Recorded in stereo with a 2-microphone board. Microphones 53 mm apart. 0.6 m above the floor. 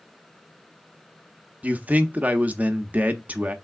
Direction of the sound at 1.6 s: 25° right (ahead or behind).